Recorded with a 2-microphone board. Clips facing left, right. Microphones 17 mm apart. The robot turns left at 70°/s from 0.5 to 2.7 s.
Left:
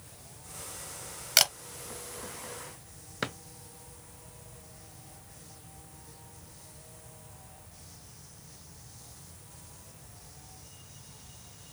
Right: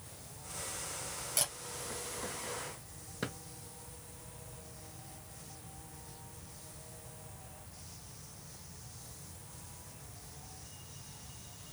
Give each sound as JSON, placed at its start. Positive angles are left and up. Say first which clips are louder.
{"t": 1.4, "sound": "a camera shutter", "louder": "left 13 dB", "side_deg": 65, "distance_m": 0.8}
{"t": 3.2, "sound": "a drawer", "louder": "left 5 dB", "side_deg": 40, "distance_m": 0.6}